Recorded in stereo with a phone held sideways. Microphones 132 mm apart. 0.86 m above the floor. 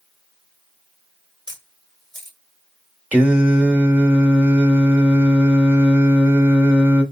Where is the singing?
10° right (ahead or behind), 0.8 m.